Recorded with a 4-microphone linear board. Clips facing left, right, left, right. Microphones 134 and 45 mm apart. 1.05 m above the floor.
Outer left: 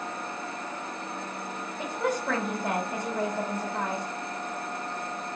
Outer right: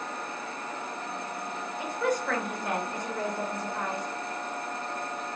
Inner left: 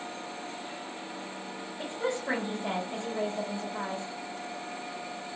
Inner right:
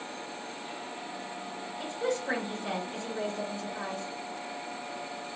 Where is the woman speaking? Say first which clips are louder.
Even, even; 30° left (ahead or behind), 1.4 m.